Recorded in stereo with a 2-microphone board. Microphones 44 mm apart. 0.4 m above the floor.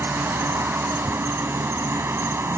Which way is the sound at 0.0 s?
75° right (ahead or behind).